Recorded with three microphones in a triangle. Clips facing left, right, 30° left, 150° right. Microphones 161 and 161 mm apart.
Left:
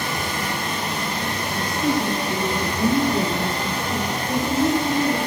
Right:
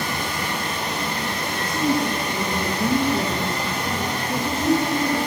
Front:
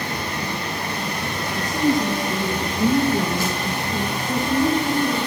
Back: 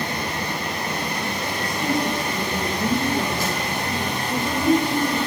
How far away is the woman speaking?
About 2 m.